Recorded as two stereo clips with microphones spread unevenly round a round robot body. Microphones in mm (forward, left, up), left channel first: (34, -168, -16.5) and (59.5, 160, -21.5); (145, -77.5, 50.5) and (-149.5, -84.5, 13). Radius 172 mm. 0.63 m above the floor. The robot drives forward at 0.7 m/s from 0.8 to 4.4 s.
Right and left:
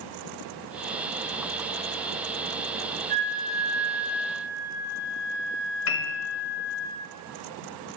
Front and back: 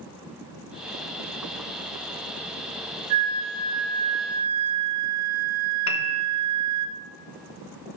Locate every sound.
3.1 s a flute: 150° left, 0.6 m; by 6.9 s 170° left, 1.3 m
5.9 s a piano: 45° right, 1.0 m